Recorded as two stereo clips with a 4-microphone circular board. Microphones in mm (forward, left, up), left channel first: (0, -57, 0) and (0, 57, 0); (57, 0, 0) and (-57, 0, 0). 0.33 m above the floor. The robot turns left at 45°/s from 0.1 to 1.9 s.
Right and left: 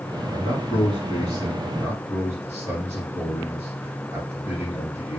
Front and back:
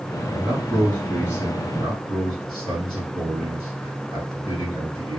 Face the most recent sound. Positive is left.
turn(degrees=30)